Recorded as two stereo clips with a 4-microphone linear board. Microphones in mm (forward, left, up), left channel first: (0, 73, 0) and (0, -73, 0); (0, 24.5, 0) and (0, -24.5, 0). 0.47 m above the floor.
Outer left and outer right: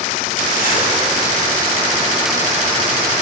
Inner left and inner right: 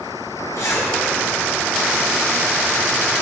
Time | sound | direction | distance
0.6 | a zipper | 75° left (ahead or behind) | 3.5 m